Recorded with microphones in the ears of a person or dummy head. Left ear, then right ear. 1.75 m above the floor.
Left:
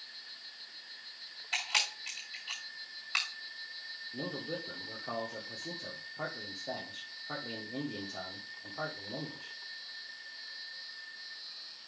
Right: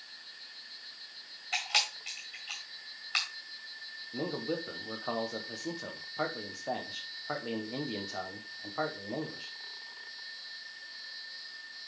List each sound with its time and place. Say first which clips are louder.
1.5 s a camera shutter: right 2 dB; 5° right (ahead or behind), 2 m
4.1 s a man speaking: right 5 dB; 60° right (ahead or behind), 1.3 m